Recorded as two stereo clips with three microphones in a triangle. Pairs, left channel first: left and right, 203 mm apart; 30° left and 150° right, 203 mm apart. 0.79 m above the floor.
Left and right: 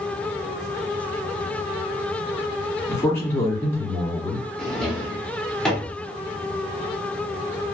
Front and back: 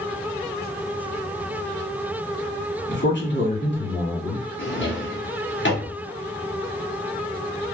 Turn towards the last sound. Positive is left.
turn(degrees=5)